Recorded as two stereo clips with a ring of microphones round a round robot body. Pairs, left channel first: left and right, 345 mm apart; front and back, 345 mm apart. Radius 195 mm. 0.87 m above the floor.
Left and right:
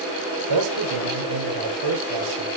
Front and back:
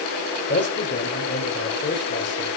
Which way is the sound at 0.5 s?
60° right.